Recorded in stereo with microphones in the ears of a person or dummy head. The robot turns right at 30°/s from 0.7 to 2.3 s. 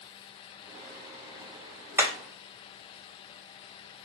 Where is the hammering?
15° right (ahead or behind), 0.6 m; by 2.1 s 10° right (ahead or behind), 0.6 m.